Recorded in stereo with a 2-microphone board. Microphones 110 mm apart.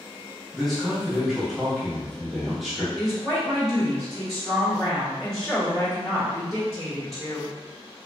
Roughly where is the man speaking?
Centre.